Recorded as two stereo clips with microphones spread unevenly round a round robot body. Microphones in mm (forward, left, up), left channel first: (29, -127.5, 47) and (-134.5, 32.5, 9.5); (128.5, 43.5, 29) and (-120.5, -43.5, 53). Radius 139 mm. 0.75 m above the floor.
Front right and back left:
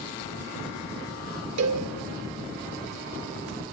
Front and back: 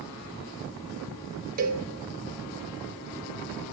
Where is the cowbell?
140° left, 1.3 m.